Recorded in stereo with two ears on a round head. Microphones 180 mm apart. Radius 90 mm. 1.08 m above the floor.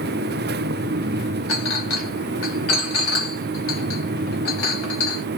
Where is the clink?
75° left (ahead or behind), 1.4 m.